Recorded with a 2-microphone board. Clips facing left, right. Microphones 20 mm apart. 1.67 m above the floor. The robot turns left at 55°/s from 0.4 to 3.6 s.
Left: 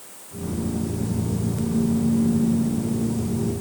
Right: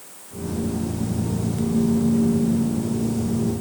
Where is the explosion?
I don't hear an explosion.